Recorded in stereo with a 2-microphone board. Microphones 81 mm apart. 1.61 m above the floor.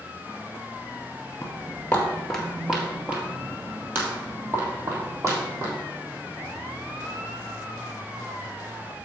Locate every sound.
1.4 s footsteps: 30° left (ahead or behind), 1.8 m; by 5.7 s 40° right (ahead or behind), 4 m